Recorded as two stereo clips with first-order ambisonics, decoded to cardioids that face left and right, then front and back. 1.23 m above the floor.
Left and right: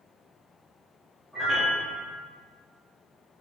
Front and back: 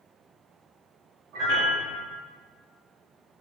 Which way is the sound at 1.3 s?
170° left.